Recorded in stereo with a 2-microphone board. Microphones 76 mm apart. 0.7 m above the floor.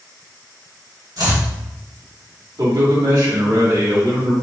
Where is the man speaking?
55° right (ahead or behind), 1.3 m.